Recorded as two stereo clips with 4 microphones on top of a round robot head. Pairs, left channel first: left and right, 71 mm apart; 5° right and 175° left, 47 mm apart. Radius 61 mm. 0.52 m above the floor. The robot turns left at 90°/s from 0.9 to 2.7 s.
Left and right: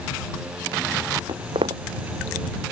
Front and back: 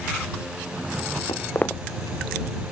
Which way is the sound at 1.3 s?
45° right.